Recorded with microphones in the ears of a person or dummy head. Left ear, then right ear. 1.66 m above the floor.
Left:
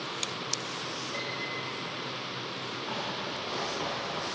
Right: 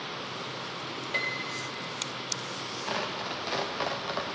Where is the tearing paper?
40° right (ahead or behind), 0.6 m.